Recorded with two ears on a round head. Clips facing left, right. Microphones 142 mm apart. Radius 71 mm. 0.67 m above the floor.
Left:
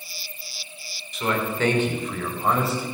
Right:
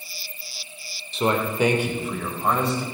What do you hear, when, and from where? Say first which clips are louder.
1.1 s a man speaking: right 3 dB; 25° right (ahead or behind), 1.8 m; by 2.8 s 5° left (ahead or behind), 3 m